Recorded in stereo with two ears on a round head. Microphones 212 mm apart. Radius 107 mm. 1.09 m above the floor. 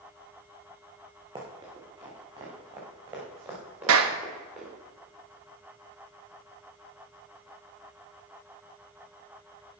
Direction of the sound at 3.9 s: 60° right (ahead or behind).